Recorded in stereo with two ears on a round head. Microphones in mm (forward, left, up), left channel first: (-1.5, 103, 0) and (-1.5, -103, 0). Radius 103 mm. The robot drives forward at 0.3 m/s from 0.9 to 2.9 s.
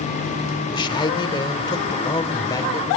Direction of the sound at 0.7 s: 20° left (ahead or behind).